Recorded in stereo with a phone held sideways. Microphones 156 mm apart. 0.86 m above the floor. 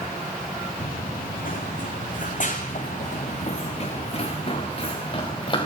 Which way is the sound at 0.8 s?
70° left (ahead or behind).